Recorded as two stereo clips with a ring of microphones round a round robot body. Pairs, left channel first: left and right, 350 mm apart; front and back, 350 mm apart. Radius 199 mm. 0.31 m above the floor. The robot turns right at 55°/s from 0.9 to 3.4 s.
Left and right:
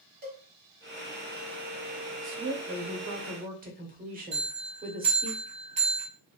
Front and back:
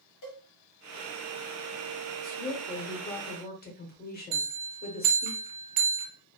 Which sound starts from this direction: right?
A woman speaking, at 2.2 s.